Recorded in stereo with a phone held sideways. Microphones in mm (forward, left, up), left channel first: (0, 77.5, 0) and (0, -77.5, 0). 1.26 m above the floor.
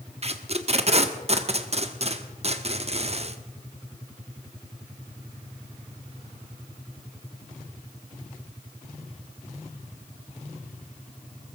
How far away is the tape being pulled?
About 1.1 m.